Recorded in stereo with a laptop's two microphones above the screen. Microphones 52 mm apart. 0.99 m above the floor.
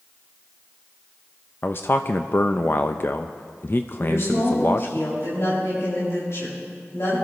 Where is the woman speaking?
65° left (ahead or behind), 6 m.